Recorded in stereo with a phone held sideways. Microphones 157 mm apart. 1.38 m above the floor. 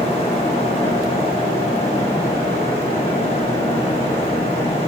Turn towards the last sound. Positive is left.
turn(degrees=35)  # may be behind; listen again after turning